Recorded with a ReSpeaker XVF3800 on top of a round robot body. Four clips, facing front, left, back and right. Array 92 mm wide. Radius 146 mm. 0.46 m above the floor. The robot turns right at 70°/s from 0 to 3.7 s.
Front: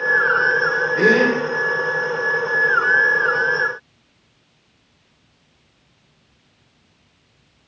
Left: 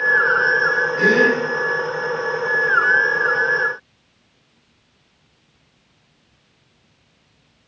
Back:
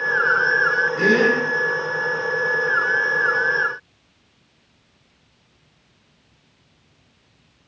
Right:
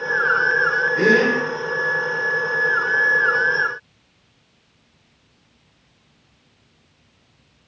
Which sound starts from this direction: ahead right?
A gasp, at 1.0 s.